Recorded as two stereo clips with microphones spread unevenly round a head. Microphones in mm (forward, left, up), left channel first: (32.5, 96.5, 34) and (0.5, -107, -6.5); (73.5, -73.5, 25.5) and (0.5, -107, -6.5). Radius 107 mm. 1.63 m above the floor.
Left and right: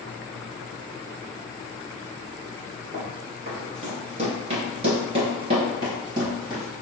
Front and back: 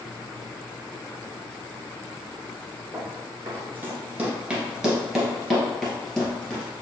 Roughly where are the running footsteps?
Behind right.